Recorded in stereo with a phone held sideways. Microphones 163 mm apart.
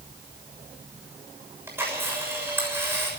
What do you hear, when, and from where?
1.7 s a camera shutter: 15° right (ahead or behind), 6.5 m